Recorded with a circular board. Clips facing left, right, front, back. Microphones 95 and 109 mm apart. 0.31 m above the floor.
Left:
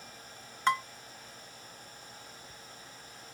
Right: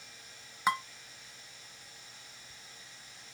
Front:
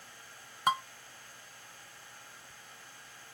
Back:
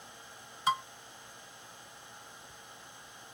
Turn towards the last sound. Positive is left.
turn(degrees=-10)